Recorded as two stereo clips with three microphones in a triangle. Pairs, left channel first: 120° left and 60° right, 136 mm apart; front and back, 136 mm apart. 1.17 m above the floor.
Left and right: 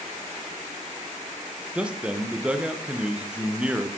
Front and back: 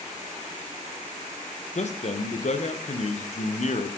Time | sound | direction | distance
1.8 | a man speaking | 25° left | 0.8 m